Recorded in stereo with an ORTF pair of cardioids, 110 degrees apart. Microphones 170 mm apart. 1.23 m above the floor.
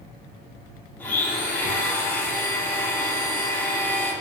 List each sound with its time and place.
1.0 s a blender: 10° left, 2 m